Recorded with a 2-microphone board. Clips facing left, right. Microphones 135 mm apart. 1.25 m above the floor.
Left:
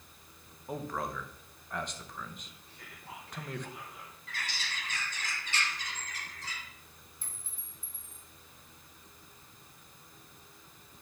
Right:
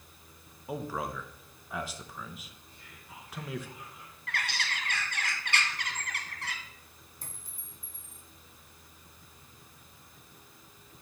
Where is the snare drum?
I don't hear a snare drum.